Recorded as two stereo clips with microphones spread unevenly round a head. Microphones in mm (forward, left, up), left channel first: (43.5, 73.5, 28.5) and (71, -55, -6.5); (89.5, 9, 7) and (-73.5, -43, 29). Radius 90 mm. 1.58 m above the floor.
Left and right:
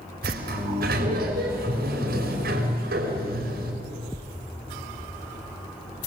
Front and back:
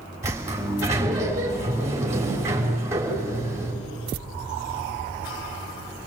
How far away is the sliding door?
About 5.5 m.